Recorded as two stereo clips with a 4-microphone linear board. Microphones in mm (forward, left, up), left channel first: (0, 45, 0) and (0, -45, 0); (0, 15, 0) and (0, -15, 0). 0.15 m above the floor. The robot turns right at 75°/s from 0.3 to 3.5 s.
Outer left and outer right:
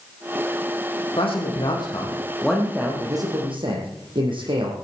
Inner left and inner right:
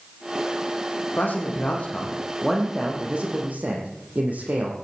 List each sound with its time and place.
1.2 s a man speaking: 75° left, 5.5 m; by 4.7 s 110° right, 5.5 m